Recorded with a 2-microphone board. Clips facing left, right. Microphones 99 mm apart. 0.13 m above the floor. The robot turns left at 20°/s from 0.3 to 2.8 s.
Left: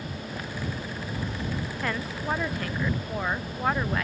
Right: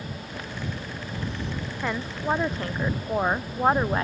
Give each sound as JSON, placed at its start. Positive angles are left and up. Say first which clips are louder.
{"t": 1.8, "sound": "a woman speaking", "louder": "right 4 dB", "side_deg": -10}